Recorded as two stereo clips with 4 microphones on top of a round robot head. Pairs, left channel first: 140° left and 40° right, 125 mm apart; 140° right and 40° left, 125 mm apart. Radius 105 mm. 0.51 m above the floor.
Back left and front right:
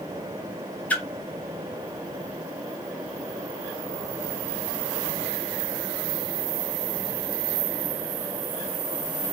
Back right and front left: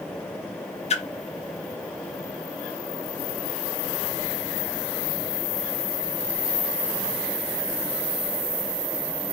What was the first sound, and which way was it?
A splash, 145° right.